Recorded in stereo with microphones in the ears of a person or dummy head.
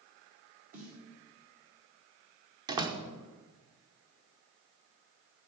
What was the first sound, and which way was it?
A snare drum, 45° right (ahead or behind).